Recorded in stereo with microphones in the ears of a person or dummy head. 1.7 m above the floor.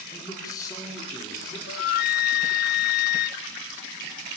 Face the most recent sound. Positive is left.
turn(degrees=55)  # may be behind; listen again after turning